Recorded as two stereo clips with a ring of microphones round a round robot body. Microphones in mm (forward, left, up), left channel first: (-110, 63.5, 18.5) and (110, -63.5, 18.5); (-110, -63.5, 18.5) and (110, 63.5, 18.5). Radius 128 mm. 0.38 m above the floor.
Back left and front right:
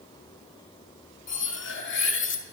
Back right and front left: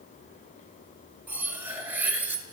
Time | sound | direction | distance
1.3 | cutlery clinking | 115° left | 0.9 m